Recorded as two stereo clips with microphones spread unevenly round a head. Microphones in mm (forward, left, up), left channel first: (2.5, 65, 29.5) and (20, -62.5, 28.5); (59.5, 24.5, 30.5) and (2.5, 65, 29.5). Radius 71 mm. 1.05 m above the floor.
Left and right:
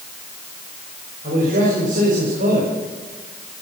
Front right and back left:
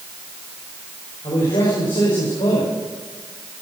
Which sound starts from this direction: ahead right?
A man speaking, at 1.2 s.